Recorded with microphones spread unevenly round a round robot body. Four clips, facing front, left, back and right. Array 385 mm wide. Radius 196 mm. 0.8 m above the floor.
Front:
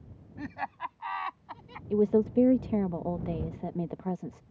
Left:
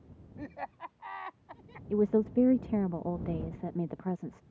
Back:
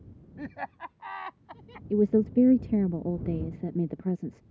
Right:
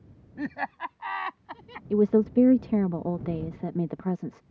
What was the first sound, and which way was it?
Laughter, 100° right.